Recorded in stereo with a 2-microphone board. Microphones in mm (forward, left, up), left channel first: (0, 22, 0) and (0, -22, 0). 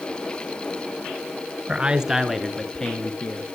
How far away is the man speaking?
About 1.3 m.